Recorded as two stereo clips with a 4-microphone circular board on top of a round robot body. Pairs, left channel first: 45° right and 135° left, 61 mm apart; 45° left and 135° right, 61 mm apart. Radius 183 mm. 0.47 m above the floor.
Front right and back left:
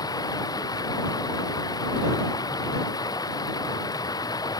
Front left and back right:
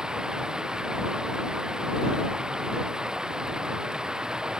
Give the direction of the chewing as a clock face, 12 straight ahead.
I don't hear chewing.